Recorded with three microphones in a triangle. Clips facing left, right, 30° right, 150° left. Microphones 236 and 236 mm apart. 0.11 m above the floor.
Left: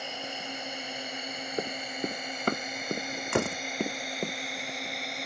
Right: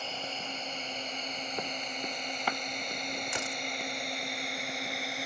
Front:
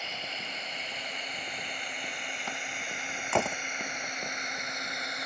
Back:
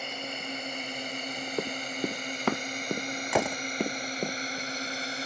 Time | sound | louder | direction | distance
0.0 | a drone | left 1 dB, back 5 dB | 165° left | ?
1.6 | running footsteps | left 8 dB, back 12 dB | 145° left | ?
3.3 | a door slam | left 11 dB, back 2 dB | 65° left | ?